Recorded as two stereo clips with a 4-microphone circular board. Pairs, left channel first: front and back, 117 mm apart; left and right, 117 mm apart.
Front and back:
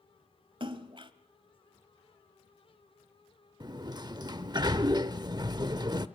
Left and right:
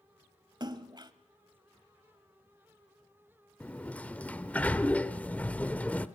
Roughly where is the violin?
I don't hear a violin.